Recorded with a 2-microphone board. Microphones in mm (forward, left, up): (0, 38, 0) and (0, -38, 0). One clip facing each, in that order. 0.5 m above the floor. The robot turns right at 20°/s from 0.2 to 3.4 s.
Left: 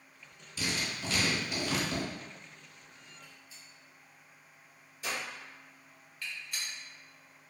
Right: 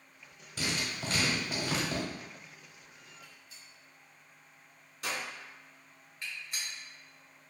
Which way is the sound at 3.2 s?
70° right (ahead or behind).